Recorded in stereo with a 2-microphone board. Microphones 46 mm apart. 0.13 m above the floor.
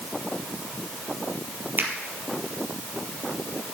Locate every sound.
1.8 s a finger snap: 45° right (ahead or behind), 3 m